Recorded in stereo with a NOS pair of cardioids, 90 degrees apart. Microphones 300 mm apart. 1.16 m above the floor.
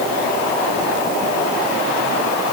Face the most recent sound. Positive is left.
No sound to turn to.